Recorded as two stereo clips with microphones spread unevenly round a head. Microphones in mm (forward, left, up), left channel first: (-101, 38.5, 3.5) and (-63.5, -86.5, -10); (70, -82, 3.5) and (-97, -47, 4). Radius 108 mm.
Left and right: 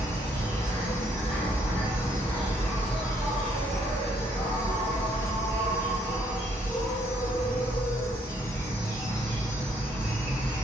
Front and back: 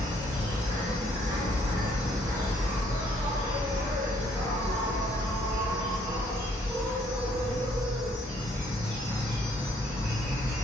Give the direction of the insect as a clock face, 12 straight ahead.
9 o'clock.